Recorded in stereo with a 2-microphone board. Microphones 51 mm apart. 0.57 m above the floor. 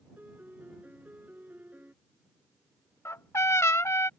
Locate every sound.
0.2 s a piano: 40° right (ahead or behind)
3.0 s a trumpet: 75° left (ahead or behind)